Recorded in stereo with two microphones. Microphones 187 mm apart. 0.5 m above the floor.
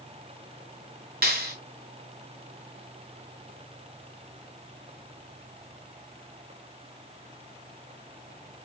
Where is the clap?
55° right (ahead or behind), 3 m.